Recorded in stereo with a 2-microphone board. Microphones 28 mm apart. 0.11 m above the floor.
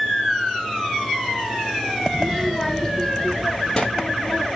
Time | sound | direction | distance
2.1 | a child speaking | 20° right (ahead or behind) | 0.9 m